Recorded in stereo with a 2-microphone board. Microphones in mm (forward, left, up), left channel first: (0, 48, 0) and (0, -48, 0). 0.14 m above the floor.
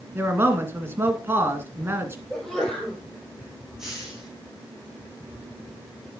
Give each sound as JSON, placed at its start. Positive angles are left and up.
{"t": 0.1, "sound": "a man speaking", "side_deg": -25, "distance_m": 1.8}
{"t": 2.3, "sound": "a sneeze", "side_deg": 5, "distance_m": 3.5}
{"t": 3.8, "sound": "a hiss", "side_deg": -5, "distance_m": 4.0}